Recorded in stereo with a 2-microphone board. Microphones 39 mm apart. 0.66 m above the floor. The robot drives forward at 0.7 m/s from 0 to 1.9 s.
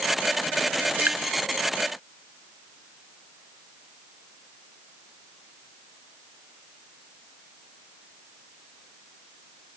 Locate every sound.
1.0 s dripping: 60° right (ahead or behind), 1.1 m; by 1.2 s 55° right (ahead or behind), 1.2 m